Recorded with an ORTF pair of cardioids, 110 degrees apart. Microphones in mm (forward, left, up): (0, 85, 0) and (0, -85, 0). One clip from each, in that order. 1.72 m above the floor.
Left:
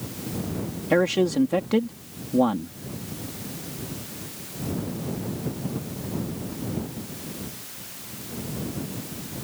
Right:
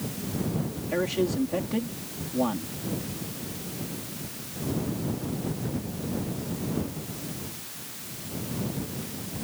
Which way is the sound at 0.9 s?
70° left.